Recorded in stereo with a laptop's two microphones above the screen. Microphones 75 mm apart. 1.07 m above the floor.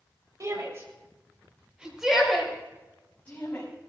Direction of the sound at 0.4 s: 45° right (ahead or behind).